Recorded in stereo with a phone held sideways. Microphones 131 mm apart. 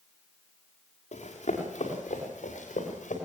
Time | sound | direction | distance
1.1 | running footsteps | 55° left (ahead or behind) | 6 m